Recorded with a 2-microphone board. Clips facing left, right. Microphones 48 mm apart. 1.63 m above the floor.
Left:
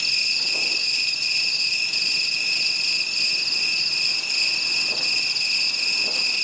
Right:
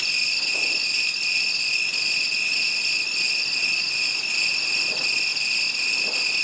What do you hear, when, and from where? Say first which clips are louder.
0.0 s an insect: right 1 dB; 20° right (ahead or behind), 1.4 m